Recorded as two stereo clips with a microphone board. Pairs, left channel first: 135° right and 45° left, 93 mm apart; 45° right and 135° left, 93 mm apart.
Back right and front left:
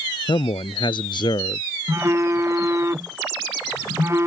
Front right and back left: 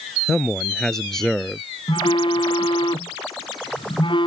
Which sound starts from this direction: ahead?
A phone buzzing, at 1.9 s.